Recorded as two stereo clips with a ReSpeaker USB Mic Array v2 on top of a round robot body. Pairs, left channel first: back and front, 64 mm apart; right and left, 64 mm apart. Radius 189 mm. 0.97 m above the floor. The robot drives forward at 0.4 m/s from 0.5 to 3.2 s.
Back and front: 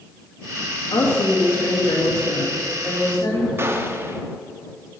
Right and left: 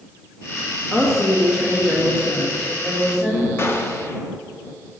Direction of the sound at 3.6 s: 45° right.